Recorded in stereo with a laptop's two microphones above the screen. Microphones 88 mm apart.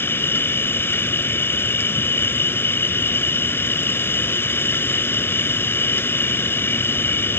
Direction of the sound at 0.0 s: 25° left (ahead or behind).